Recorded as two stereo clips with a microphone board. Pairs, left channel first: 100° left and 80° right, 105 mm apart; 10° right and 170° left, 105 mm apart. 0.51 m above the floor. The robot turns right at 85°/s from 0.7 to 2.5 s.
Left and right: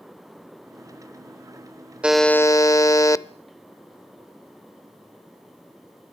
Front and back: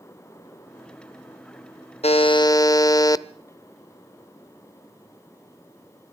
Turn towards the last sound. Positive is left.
turn(degrees=40)